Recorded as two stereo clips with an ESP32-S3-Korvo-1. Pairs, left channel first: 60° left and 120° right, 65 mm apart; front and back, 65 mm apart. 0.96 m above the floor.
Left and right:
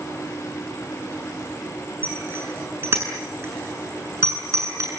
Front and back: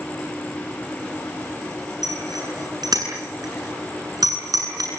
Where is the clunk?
No clunk in this recording.